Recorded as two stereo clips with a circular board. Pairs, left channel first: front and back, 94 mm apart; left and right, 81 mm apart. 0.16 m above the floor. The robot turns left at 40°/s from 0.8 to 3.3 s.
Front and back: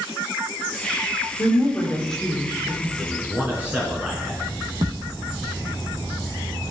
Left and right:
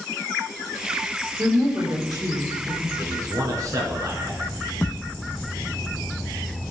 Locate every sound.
1.4 s a woman speaking: 50° right, 3 m; by 2.9 s 110° right, 3 m
3.0 s a man speaking: 95° right, 1.3 m; by 4.5 s 110° right, 1.3 m
4.8 s a thud: 155° left, 0.9 m